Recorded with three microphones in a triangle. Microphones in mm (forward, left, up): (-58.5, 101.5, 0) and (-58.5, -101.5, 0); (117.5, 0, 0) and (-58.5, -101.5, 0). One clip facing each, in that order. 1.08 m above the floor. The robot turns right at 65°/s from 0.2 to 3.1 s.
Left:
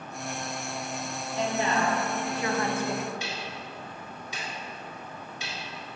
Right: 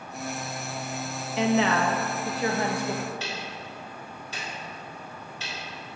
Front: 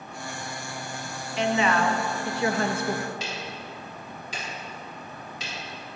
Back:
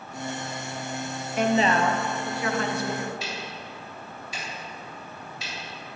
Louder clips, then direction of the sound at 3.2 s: Right 1 dB, front 1 dB; 15° left.